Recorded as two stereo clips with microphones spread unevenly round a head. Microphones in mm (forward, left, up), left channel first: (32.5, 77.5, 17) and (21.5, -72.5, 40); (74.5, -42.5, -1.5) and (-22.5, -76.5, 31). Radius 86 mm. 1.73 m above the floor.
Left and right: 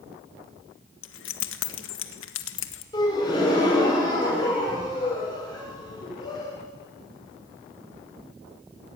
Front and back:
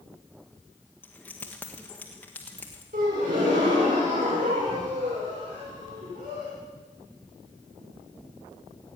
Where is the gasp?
155° left, 7 m.